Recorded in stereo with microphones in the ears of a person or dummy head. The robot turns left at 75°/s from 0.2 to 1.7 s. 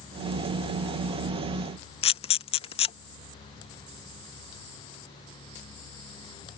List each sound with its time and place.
2.0 s a camera shutter: 35° left (ahead or behind)